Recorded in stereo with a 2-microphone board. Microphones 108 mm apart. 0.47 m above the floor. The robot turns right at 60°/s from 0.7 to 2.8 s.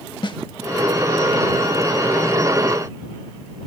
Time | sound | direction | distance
0.2 | a snare drum | 50° left (ahead or behind) | ?